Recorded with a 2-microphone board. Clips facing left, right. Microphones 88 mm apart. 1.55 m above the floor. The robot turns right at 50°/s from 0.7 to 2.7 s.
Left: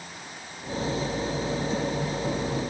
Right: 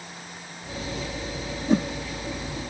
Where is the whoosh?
60° right (ahead or behind), 1.4 m; by 1.9 s 65° right (ahead or behind), 1.4 m.